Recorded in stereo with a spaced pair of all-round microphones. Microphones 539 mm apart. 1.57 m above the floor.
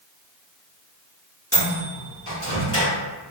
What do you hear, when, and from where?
1.5 s a microwave: 25° left (ahead or behind), 1.6 m